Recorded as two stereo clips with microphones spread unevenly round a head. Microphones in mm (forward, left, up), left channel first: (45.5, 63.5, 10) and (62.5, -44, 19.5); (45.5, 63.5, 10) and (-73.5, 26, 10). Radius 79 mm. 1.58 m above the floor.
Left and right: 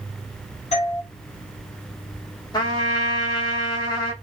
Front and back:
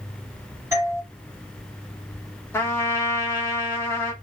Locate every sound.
0.7 s a doorbell: 130° left, 1.8 m
2.5 s a trumpet: 70° left, 1.2 m